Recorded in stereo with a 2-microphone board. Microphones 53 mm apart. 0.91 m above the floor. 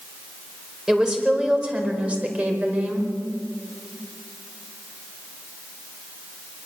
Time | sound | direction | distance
0.9 | a woman speaking | 15° right (ahead or behind) | 4 m